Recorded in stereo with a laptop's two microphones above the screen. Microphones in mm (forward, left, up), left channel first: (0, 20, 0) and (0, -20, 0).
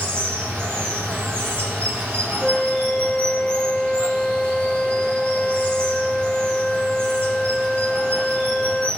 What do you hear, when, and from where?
0.0 s running water: 60° right (ahead or behind), 4 m
2.4 s a flute: 10° left (ahead or behind), 0.8 m